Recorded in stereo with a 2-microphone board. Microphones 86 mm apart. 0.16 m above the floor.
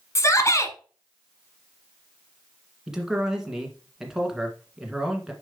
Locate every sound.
0.1 s a shout: 35° left (ahead or behind), 1.2 m
2.9 s a man speaking: 5° right (ahead or behind), 1.7 m